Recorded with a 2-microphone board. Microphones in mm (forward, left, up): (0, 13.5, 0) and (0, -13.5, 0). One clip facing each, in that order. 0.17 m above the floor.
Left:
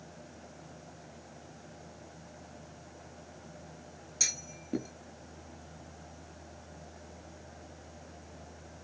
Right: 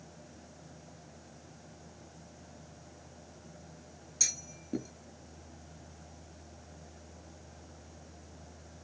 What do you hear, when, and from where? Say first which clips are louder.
4.2 s a clunk: left 1 dB; 20° left (ahead or behind)